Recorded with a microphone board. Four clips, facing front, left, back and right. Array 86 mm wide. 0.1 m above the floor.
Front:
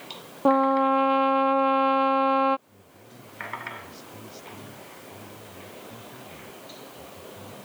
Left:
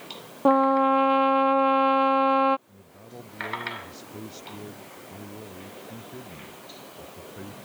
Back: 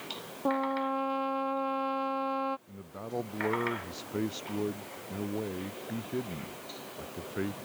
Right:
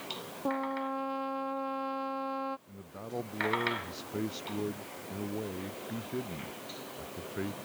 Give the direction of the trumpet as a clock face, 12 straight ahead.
10 o'clock.